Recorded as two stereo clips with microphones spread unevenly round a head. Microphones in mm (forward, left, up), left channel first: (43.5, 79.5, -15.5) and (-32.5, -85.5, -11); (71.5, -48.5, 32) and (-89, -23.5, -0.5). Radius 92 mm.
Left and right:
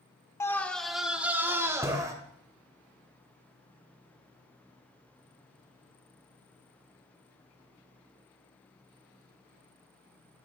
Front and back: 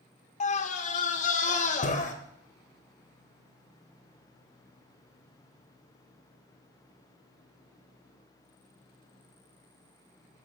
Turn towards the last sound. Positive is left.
turn(degrees=-45)